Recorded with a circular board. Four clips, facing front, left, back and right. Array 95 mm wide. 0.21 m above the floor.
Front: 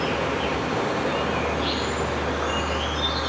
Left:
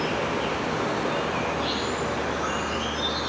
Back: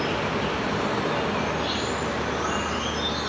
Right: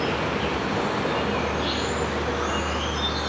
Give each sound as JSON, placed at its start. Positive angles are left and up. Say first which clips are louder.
{"t": 0.0, "sound": "an insect", "louder": "right 1 dB, front 1 dB", "azimuth_deg": -30, "distance_m": 9.5}